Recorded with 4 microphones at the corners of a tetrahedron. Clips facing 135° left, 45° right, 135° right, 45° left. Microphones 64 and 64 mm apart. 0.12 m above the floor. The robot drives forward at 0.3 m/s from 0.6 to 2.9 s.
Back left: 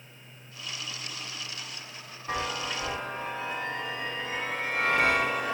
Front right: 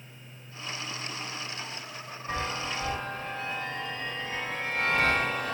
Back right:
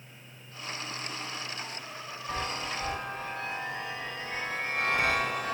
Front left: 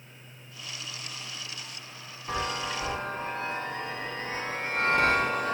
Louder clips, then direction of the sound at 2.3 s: Back left 1 dB, front left 3 dB; 60° left.